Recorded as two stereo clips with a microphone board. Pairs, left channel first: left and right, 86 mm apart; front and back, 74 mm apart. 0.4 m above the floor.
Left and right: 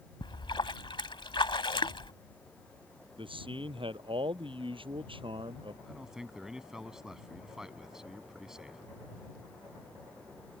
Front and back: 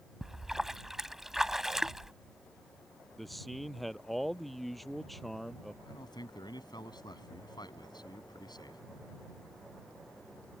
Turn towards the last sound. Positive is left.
turn(degrees=-5)